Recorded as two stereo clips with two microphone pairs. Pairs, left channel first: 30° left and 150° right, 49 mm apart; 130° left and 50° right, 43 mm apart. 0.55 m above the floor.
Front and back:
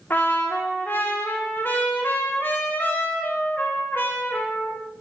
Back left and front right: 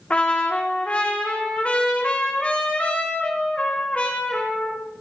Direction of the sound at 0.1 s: 70° left.